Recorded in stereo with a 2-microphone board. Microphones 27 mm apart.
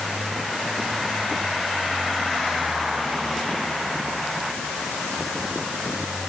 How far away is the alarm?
No alarm in this recording.